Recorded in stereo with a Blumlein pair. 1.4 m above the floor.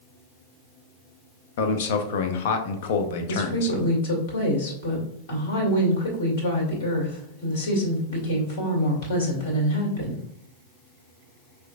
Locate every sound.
1.6 s a man speaking: 55° left, 0.7 m
3.3 s a woman speaking: 55° left, 2 m